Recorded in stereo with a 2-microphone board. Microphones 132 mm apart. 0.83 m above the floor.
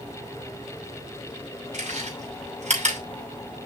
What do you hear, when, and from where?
1.7 s chewing: 65° right (ahead or behind), 5.5 m